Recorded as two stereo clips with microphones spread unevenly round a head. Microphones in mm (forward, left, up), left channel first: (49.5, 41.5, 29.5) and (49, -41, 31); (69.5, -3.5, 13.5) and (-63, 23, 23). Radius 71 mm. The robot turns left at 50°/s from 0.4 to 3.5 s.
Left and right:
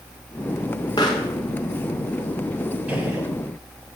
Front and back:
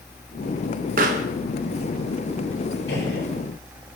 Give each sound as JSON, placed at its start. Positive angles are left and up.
{"t": 1.0, "sound": "a pop", "azimuth_deg": 155, "distance_m": 1.4}
{"t": 2.9, "sound": "a gunshot", "azimuth_deg": -15, "distance_m": 9.5}